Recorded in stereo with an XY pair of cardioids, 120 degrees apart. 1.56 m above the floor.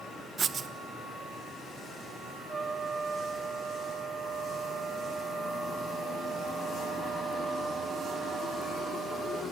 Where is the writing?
45° right, 1.3 m.